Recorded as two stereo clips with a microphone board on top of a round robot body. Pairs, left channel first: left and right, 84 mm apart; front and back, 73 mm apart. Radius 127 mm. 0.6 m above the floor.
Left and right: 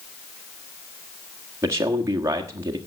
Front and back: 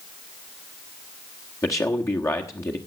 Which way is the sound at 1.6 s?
40° right.